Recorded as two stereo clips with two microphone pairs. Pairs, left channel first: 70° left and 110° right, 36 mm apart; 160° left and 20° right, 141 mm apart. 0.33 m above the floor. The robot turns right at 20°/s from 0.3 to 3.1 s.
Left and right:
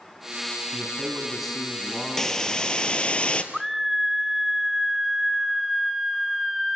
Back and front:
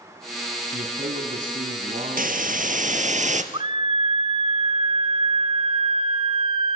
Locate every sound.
0.7 s a man speaking: 30° right, 3 m; by 3.2 s 20° left, 3 m
2.2 s a hiss: 10° right, 1.5 m; by 3.4 s 10° left, 1.5 m
3.5 s a scream: 30° right, 1.1 m